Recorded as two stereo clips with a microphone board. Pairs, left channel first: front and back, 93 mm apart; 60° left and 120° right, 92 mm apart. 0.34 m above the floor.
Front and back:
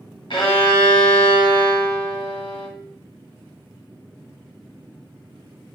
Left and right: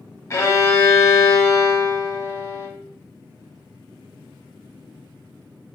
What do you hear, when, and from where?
0.3 s a violin: 5° left, 1.1 m